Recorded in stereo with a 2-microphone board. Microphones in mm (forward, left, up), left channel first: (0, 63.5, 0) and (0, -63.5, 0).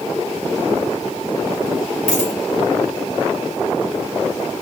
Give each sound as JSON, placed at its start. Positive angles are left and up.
{"t": 2.1, "sound": "a dropped coin", "side_deg": 55, "distance_m": 9.5}